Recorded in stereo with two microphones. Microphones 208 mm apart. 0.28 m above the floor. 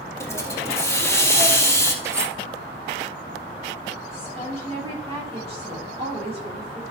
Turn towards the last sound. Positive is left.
turn(degrees=-30)  # may be behind; listen again after turning